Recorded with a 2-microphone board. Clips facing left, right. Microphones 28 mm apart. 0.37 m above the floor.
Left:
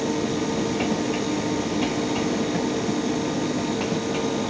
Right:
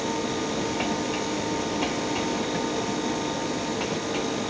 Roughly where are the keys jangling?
No keys jangling in this recording.